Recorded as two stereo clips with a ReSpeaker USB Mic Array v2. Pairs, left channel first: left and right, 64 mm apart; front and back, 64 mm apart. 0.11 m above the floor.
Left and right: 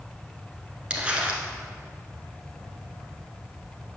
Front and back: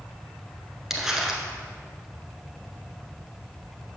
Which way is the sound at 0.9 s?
115° right.